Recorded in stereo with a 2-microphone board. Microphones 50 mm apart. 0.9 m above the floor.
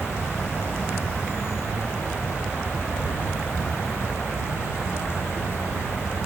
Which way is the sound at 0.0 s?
60° left (ahead or behind).